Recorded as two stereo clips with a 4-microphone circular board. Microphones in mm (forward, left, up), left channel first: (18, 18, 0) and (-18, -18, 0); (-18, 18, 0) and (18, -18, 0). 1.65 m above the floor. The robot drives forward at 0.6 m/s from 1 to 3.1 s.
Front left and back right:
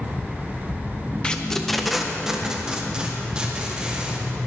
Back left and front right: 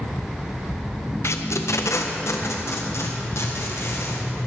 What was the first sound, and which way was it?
Tape being pulled, 115° left.